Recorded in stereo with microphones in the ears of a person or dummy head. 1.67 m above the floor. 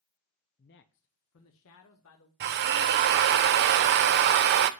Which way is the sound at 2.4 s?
55° right (ahead or behind).